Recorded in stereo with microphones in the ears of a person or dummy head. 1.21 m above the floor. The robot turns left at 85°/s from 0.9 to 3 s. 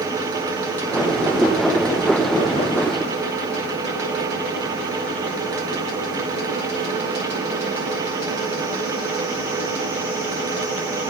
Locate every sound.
Only background noise.